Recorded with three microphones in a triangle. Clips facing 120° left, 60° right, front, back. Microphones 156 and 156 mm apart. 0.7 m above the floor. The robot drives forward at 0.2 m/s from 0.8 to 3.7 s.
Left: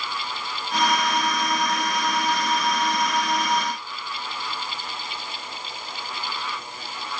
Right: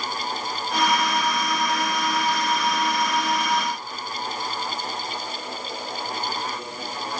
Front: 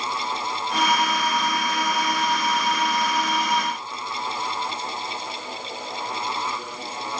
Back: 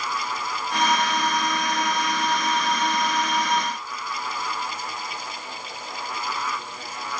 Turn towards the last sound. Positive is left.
No sound to turn to.